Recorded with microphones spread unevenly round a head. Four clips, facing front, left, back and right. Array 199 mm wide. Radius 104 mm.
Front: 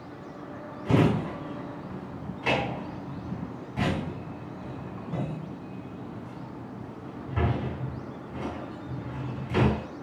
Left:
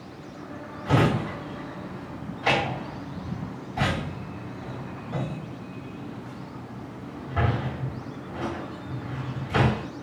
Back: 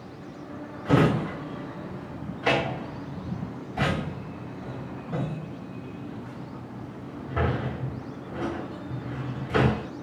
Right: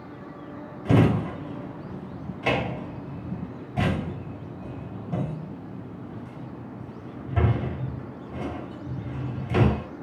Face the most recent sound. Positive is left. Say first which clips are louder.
# right 2 dB, back 2 dB
turn(degrees=-110)